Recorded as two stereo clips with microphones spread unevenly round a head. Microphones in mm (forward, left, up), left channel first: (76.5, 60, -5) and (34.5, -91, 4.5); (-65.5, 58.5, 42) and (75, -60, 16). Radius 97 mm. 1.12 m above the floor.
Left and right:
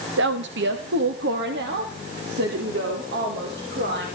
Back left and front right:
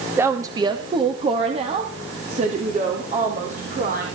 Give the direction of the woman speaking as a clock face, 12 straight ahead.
4 o'clock.